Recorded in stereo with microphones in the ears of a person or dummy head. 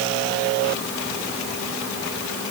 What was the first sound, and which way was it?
Only background noise.